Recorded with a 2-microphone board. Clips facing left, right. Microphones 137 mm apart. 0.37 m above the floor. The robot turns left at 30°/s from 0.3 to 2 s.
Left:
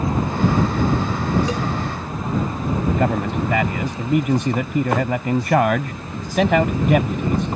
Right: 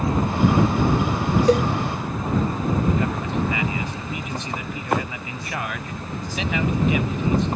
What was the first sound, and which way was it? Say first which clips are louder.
A cowbell: right 6 dB; 60° right (ahead or behind).